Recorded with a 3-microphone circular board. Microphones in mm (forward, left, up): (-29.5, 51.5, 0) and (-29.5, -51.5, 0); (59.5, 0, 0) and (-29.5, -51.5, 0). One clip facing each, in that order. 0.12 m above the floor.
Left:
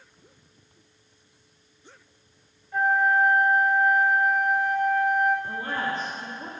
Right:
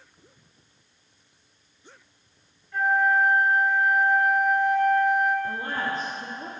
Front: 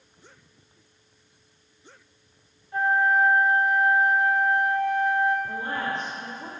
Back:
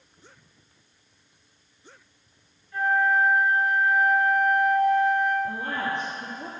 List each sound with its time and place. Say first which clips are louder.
2.7 s a flute: even, front 1 dB; 20° left, 1.6 m
5.5 s a woman speaking: even, even; 135° right, 2.5 m